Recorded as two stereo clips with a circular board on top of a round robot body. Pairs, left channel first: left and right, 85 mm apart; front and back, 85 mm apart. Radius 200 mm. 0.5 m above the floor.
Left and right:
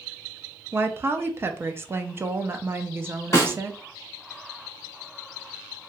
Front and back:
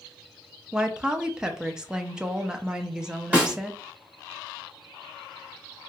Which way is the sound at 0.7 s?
110° right.